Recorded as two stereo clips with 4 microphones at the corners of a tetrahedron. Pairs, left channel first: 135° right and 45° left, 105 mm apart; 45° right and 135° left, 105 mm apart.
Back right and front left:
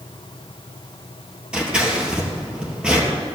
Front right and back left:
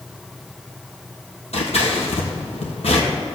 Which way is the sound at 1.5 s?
35° right.